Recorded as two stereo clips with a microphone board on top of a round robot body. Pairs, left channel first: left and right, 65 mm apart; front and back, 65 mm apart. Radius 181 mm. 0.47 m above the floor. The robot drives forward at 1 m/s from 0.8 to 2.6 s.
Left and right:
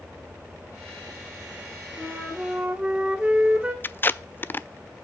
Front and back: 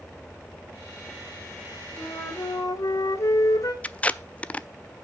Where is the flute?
15° right, 3 m.